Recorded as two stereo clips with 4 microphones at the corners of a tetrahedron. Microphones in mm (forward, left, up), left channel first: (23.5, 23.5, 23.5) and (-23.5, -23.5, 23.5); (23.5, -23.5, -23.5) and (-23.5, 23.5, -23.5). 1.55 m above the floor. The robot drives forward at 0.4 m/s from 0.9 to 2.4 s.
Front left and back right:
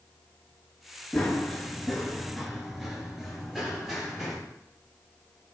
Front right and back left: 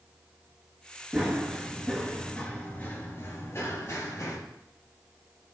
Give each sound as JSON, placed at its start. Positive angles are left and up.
{"t": 1.1, "sound": "running footsteps", "azimuth_deg": 75, "distance_m": 1.6}